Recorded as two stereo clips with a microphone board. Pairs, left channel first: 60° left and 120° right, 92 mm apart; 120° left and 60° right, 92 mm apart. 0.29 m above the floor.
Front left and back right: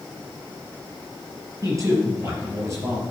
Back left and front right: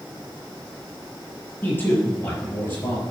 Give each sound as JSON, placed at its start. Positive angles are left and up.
{"t": 1.6, "sound": "a man speaking", "azimuth_deg": -175, "distance_m": 5.5}